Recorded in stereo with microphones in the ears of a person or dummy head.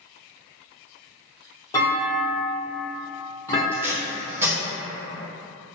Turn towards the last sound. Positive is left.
turn(degrees=-15)  # may be behind; listen again after turning